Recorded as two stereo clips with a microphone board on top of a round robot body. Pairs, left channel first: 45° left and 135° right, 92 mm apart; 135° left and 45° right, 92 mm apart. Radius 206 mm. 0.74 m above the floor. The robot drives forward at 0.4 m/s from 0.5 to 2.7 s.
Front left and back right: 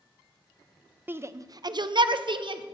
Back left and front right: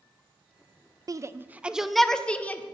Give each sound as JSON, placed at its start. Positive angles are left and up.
{"t": 1.1, "sound": "a shout", "azimuth_deg": -75, "distance_m": 0.5}